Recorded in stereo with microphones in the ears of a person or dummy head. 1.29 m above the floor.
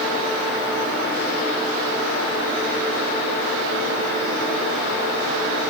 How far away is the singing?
No singing in this recording.